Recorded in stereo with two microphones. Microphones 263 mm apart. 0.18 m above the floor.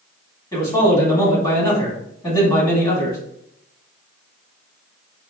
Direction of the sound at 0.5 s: 15° left (ahead or behind).